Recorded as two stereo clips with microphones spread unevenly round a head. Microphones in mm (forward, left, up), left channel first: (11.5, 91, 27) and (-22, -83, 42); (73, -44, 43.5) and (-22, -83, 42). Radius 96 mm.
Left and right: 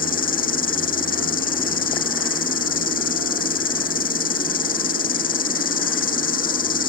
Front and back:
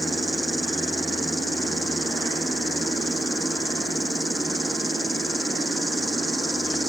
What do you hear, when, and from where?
0.0 s an insect: 115° left